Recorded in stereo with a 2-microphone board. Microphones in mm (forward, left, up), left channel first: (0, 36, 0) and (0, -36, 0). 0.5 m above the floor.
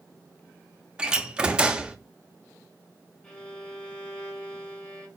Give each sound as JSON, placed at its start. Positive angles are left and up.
{"t": 1.0, "sound": "a door slam", "side_deg": -15, "distance_m": 0.6}
{"t": 3.2, "sound": "a violin", "side_deg": 15, "distance_m": 1.4}